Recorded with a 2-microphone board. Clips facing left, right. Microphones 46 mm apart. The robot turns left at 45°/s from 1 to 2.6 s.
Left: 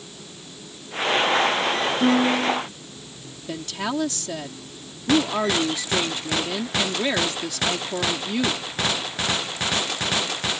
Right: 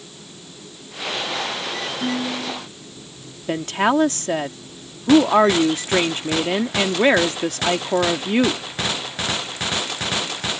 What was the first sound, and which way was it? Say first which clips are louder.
A piano: left 6 dB; 55° left (ahead or behind).